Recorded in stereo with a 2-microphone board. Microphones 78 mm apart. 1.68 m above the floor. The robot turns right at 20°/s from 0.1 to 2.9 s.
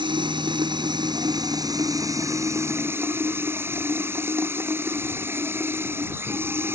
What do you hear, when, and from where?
0.0 s running water: 85° right; by 6.8 s 30° right